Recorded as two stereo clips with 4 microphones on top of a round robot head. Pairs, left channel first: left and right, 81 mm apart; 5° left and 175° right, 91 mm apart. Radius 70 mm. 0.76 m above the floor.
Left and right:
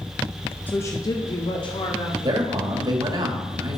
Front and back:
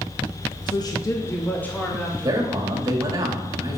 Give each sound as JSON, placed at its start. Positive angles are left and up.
{"t": 0.7, "sound": "a woman speaking", "azimuth_deg": 25, "distance_m": 0.9}
{"t": 2.2, "sound": "a man speaking", "azimuth_deg": -125, "distance_m": 1.9}